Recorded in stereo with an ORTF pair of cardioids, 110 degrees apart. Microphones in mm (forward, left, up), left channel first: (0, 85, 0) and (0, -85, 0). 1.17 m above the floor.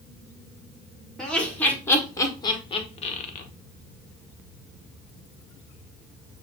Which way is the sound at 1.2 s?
5° left.